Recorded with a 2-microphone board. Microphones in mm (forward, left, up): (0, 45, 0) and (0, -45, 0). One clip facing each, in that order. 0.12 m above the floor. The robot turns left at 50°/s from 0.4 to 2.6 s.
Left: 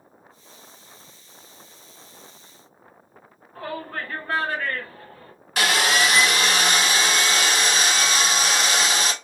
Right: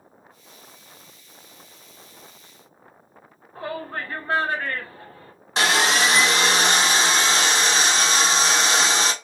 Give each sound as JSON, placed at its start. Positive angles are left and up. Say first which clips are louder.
{"t": 3.5, "sound": "a shout", "louder": "right 1 dB", "side_deg": -20, "distance_m": 1.3}
{"t": 5.6, "sound": "sawing", "louder": "right 1 dB", "side_deg": -25, "distance_m": 0.7}